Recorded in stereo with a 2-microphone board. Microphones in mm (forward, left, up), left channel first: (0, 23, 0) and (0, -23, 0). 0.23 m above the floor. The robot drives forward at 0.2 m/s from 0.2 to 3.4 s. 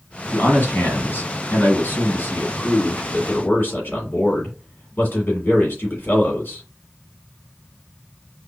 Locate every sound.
0.3 s a man speaking: 55° left (ahead or behind), 1.7 m; by 6.7 s 50° left (ahead or behind), 1.8 m